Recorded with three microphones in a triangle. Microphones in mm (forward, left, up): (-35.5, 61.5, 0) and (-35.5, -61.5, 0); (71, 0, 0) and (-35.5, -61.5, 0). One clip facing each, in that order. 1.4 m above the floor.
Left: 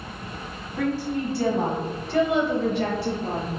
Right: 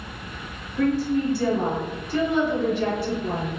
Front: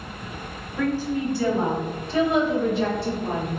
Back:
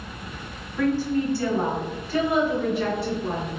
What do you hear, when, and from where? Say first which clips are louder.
0.8 s a woman speaking: right 4 dB, back 2 dB; 110° left, 1.3 m; by 3.6 s 85° left, 2.5 m